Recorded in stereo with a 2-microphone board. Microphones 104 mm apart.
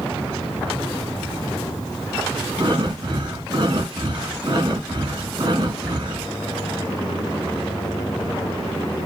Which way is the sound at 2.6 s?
45° right (ahead or behind).